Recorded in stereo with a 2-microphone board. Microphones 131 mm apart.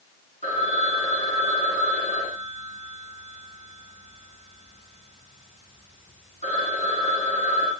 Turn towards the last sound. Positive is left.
turn(degrees=60)  # may be behind; listen again after turning